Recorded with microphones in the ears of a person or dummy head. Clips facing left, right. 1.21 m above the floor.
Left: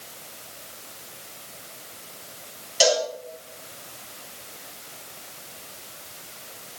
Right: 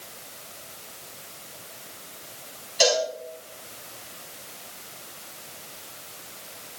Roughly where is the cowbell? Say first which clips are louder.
Left 1 dB; centre.